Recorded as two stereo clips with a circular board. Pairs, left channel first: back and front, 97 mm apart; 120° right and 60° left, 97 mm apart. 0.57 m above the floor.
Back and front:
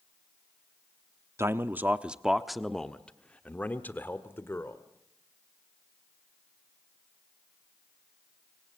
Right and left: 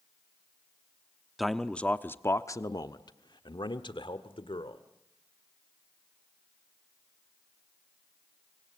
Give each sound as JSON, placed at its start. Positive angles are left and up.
{"t": 1.4, "sound": "a man speaking", "azimuth_deg": -30, "distance_m": 0.9}